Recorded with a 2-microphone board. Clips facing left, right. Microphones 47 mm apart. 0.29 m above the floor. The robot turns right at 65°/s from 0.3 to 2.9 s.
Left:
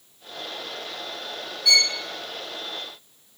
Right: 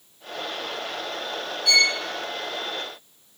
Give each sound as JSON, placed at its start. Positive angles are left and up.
{"t": 1.6, "sound": "a violin", "side_deg": 65, "distance_m": 2.5}